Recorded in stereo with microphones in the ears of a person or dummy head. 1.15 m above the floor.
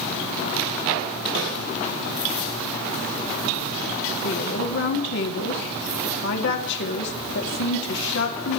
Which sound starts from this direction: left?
A woman speaking, at 4.2 s.